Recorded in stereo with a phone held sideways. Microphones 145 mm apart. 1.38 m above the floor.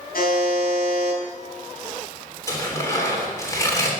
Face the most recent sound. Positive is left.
turn(degrees=20)  # may be behind; listen again after turning